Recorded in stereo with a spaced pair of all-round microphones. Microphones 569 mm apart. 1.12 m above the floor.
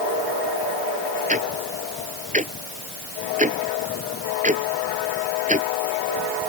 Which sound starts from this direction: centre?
Ticking, at 1.3 s.